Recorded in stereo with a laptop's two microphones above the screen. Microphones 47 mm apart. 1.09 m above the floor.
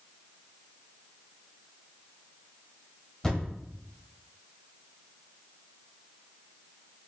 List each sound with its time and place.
3.2 s a thud: 15° left (ahead or behind), 1.1 m